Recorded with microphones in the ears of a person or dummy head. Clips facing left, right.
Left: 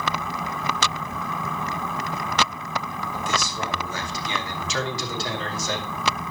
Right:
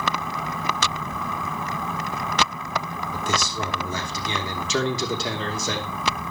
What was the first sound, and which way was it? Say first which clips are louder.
A man speaking: right 2 dB; 85° right.